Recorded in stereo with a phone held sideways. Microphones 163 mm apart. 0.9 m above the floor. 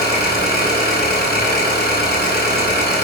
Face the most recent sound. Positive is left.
turn(degrees=85)